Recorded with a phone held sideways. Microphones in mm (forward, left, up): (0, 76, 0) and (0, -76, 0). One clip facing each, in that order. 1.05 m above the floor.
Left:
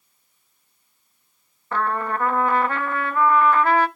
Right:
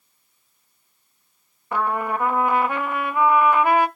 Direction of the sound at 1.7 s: 15° right (ahead or behind).